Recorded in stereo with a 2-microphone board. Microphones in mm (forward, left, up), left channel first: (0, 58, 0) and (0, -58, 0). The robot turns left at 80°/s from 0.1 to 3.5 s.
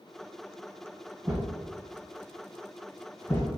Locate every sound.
1.2 s a thud: 30° right (ahead or behind), 1.6 m; by 3.5 s 30° left (ahead or behind), 1.6 m